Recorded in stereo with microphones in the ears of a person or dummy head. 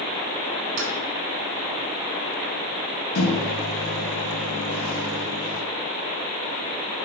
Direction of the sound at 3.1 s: 90° left.